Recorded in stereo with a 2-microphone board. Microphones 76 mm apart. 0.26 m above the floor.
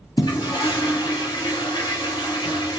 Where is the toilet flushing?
65° left (ahead or behind), 2.5 m.